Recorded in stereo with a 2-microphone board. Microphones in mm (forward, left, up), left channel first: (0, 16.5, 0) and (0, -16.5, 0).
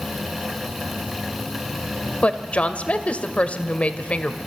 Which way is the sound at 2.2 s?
40° left (ahead or behind).